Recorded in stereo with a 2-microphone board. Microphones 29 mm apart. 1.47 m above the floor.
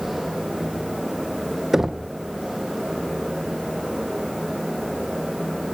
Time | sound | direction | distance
1.7 | knocking | 10° right (ahead or behind) | 0.7 m